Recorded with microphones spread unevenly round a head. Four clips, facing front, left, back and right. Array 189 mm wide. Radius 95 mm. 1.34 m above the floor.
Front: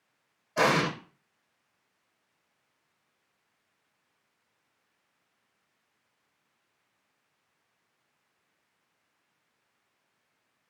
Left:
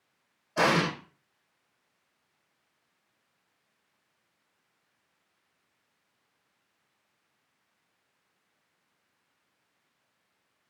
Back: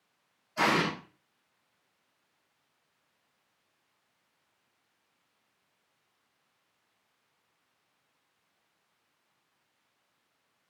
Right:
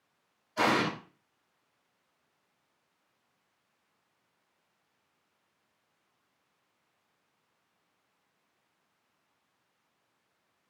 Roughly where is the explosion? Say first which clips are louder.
Left 2 dB, front 2 dB; ahead left.